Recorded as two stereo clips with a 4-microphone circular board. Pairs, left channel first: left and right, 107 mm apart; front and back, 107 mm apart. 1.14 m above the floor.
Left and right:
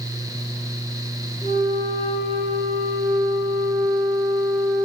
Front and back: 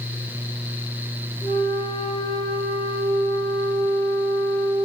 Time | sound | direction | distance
1.4 | a flute | 55° left | 1.0 m